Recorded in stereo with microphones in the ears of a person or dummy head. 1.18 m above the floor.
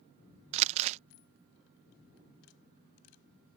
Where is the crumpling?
35° right (ahead or behind).